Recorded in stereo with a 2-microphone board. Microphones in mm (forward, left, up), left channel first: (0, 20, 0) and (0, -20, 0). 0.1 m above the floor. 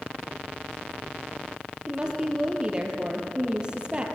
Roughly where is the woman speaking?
Centre.